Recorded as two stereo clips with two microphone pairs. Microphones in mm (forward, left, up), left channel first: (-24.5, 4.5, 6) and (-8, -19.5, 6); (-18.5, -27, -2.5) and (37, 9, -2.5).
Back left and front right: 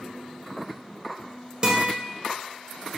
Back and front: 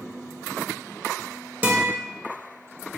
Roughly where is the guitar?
Ahead.